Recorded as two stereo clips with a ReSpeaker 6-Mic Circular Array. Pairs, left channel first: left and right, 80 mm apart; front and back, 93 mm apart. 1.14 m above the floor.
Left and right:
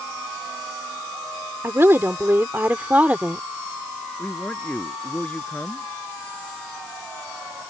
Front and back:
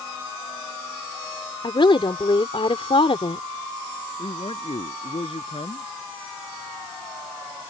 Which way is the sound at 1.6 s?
30° right.